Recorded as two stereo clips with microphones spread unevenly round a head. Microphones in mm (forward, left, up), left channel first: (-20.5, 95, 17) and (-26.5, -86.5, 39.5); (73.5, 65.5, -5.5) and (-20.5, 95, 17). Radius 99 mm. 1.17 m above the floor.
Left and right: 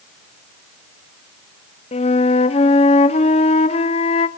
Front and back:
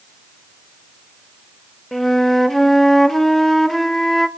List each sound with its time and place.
1.9 s a flute: 100° left, 0.6 m